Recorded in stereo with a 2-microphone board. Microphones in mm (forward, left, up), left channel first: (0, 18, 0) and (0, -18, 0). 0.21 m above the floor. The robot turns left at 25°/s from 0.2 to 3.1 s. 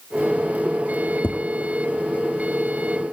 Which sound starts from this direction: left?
Tapping, at 1.2 s.